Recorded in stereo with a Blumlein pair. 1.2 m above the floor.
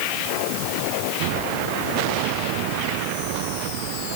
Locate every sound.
Only background noise.